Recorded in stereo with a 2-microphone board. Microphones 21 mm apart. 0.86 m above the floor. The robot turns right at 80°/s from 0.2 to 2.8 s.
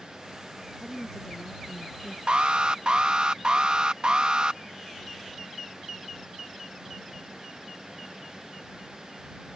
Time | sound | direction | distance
0.8 | a woman speaking | 10° left | ?
2.3 | an alarm | 100° right | ?